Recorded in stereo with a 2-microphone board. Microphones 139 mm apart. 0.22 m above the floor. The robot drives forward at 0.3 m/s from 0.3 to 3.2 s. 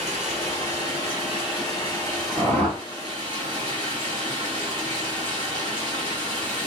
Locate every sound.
0.0 s running water: 45° right (ahead or behind), 3 m; by 6.7 s 35° right (ahead or behind), 3.5 m
2.4 s a whoosh: 50° right (ahead or behind), 2.5 m